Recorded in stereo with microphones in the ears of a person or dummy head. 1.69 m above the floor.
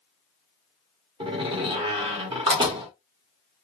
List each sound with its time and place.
1.2 s a door slam: 30° right (ahead or behind), 0.7 m